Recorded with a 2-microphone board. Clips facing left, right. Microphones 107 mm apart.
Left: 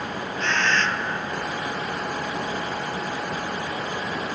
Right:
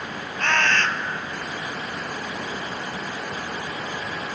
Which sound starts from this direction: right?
A bird, at 0.4 s.